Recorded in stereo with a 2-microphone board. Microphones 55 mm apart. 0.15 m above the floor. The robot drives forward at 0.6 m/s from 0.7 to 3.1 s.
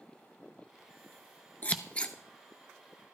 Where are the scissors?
25° left (ahead or behind), 0.6 m; by 2.1 s 20° left (ahead or behind), 0.9 m.